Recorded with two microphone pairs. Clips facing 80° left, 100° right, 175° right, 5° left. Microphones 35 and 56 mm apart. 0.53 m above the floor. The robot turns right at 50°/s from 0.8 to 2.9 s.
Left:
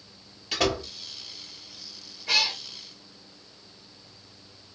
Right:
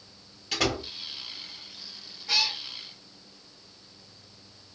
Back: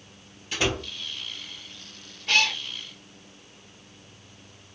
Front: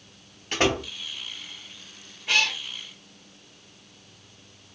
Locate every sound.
0.5 s a door slam: 5° right, 1.0 m; by 0.9 s straight ahead, 1.0 m
2.3 s a cat meowing: 80° left, 1.0 m; by 2.6 s 95° left, 1.0 m